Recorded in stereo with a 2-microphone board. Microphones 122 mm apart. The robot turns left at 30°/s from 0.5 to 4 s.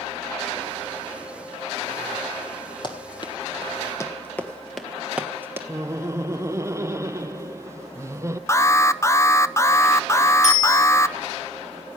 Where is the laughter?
25° right (ahead or behind), 0.5 m.